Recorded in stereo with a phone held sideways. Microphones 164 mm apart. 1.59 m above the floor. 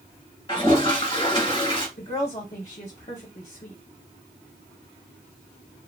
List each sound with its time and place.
0.5 s a toilet flushing: 30° left (ahead or behind), 1.3 m
2.0 s a woman speaking: 45° left (ahead or behind), 0.8 m